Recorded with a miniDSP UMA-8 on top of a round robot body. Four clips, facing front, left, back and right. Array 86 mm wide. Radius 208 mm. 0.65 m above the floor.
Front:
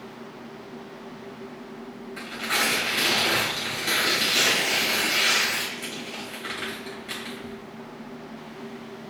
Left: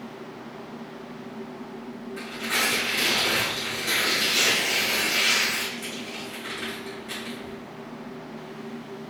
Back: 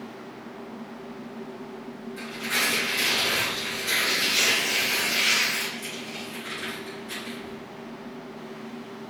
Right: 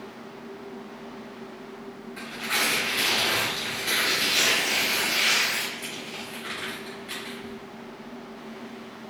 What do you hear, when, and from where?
2.2 s tearing paper: 10° right, 2.5 m